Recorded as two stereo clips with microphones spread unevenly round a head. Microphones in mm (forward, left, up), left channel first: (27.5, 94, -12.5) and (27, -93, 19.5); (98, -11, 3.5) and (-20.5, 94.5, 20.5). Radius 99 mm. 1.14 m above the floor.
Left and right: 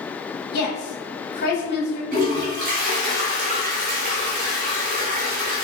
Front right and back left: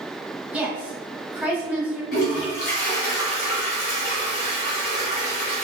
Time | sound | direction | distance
0.5 | a woman speaking | 55° left | 1.8 m
2.1 | a toilet flushing | 80° right | 1.5 m